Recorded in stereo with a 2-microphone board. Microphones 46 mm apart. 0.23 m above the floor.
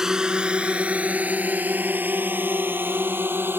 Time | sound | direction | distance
0.0 | a drone | 10° right (ahead or behind) | ?